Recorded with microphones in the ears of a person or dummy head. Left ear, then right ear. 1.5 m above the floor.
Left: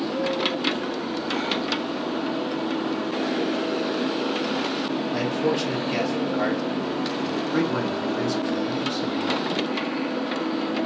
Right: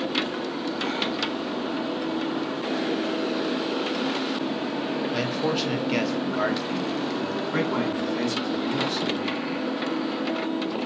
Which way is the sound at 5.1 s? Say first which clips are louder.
Left 3 dB; 20° right (ahead or behind).